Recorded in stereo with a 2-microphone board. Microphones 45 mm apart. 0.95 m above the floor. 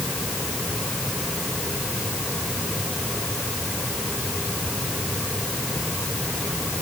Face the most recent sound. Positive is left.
No sound to turn to.